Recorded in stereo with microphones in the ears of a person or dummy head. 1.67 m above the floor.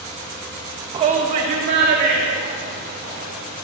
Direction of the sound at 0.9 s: 25° right (ahead or behind).